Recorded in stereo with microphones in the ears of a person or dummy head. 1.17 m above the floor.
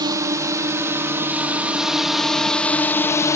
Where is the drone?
20° right (ahead or behind); by 3.4 s 20° left (ahead or behind).